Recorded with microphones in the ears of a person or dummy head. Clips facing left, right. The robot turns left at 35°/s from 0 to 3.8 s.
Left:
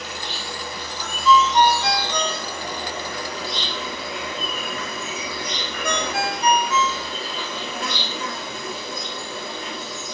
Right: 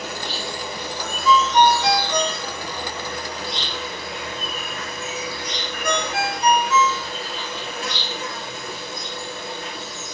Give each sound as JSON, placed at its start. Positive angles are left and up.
{"t": 0.0, "sound": "an insect", "azimuth_deg": -135, "distance_m": 4.0}
{"t": 1.2, "sound": "a ringtone", "side_deg": -5, "distance_m": 1.2}